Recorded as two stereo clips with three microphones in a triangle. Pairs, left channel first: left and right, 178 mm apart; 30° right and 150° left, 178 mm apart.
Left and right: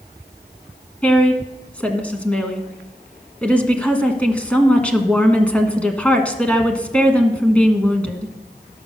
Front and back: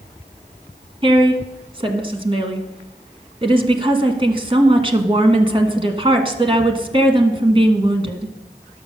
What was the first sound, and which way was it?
A woman speaking, 165° left.